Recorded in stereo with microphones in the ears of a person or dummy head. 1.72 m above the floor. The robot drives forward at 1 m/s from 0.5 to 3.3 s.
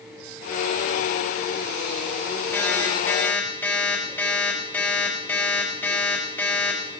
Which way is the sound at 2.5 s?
15° left (ahead or behind).